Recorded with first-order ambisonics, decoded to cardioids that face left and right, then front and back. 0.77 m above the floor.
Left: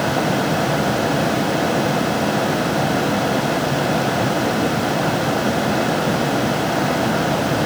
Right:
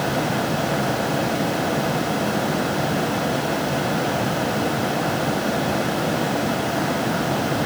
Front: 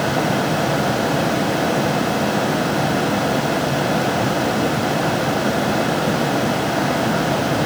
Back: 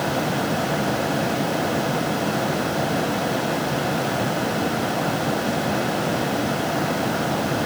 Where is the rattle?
No rattle in this recording.